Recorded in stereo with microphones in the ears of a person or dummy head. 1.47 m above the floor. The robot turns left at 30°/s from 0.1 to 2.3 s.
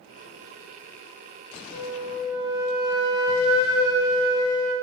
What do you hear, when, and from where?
1.7 s a flute: 45° left (ahead or behind), 0.8 m; by 4.7 s 30° left (ahead or behind), 0.8 m